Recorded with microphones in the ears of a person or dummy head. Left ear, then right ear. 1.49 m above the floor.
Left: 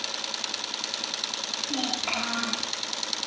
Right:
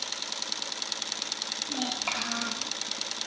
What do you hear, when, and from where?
1.7 s a child speaking: 25° right (ahead or behind), 3 m